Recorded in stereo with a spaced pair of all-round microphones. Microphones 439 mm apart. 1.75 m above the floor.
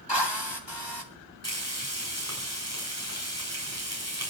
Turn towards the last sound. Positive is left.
turn(degrees=-35)  # may be behind; listen again after turning